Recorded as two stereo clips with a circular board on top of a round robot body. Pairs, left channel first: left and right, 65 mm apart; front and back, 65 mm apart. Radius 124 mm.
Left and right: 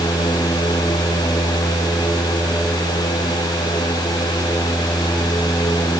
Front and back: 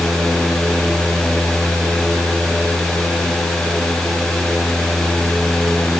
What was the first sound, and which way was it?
Only background noise.